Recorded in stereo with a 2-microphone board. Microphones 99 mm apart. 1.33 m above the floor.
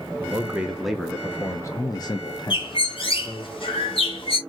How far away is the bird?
About 1.6 m.